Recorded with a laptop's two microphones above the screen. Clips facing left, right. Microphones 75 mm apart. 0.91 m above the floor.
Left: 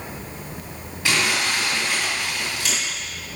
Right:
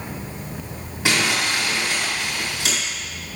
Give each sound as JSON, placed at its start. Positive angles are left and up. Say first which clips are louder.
{"t": 1.1, "sound": "crumpling", "louder": "right 1 dB", "side_deg": -25, "distance_m": 4.0}